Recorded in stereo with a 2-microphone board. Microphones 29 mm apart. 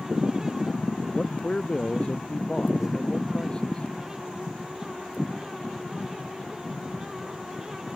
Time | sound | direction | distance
1.1 | a man speaking | 30° left (ahead or behind) | ?